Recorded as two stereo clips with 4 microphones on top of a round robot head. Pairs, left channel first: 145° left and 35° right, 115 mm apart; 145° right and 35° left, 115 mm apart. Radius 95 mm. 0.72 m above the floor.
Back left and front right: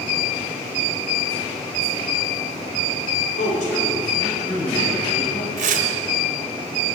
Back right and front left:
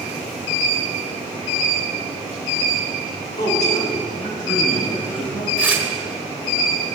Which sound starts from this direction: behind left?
A man speaking, at 3.4 s.